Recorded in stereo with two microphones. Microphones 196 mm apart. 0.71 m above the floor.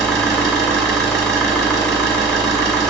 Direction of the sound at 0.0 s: 5° left (ahead or behind).